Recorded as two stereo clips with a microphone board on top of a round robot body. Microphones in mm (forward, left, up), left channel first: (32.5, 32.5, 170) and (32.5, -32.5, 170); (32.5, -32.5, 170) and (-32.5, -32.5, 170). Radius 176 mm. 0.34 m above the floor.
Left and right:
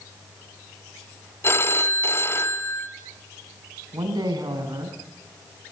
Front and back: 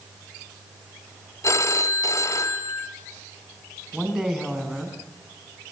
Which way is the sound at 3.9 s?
95° right.